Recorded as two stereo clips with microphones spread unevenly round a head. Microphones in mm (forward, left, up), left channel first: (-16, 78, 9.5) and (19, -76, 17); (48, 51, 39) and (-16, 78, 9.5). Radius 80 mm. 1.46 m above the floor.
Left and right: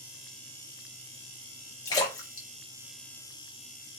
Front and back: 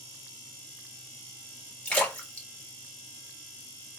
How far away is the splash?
About 1.6 m.